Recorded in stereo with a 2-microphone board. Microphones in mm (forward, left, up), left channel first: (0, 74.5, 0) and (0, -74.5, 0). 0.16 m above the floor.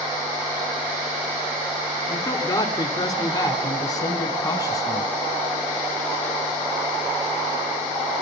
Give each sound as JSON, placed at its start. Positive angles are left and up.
{"t": 2.1, "sound": "a man speaking", "side_deg": 25, "distance_m": 2.0}